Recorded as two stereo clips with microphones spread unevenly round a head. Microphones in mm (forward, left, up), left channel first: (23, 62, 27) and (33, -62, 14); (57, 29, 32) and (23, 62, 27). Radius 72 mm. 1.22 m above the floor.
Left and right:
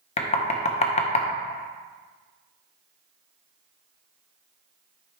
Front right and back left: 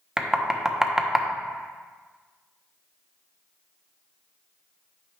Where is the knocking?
60° left, 0.9 m.